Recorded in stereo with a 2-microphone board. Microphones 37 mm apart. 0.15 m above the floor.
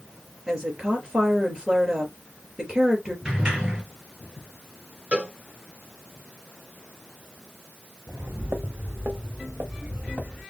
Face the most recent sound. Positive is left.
turn(degrees=-40)  # may be behind; listen again after turning